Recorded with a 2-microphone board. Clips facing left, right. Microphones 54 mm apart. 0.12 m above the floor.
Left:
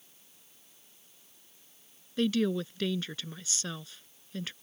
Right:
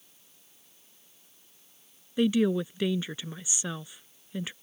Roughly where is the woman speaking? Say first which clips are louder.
Right 4 dB; centre.